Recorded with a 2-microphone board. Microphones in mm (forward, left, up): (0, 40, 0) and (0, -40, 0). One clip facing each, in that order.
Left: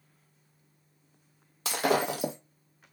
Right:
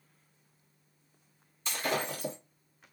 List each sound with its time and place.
1.6 s breaking glass: 85° left, 0.7 m